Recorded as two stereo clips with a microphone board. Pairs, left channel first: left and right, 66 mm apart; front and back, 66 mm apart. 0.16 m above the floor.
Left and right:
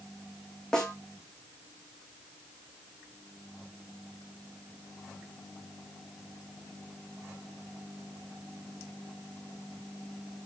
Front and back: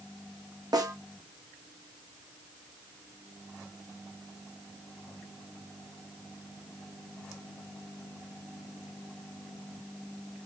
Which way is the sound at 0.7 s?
170° left.